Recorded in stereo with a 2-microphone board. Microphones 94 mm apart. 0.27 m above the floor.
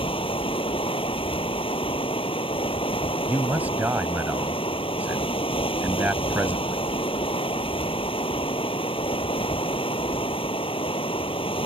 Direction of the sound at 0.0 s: 75° left (ahead or behind).